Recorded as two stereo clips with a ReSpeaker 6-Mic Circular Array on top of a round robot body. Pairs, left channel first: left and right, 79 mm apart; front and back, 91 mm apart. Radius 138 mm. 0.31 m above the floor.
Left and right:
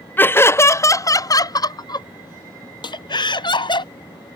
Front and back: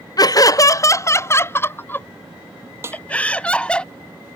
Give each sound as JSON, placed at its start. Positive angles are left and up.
{"t": 0.2, "sound": "laughter", "azimuth_deg": 30}
{"t": 2.8, "sound": "a snare drum", "azimuth_deg": 120}